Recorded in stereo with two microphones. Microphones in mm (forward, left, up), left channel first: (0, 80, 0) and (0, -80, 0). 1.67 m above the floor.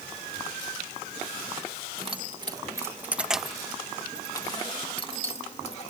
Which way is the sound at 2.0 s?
35° right (ahead or behind).